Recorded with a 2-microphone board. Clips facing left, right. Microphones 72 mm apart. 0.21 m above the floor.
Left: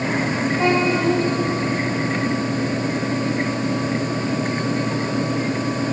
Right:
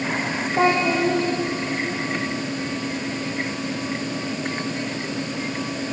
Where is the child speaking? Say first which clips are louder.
Right 1 dB; 75° right (ahead or behind), 9 m.